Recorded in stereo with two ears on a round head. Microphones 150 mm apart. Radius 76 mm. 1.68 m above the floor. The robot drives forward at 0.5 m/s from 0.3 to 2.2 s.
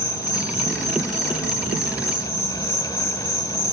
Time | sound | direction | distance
0.0 | an insect | 45° left (ahead or behind) | 1.6 m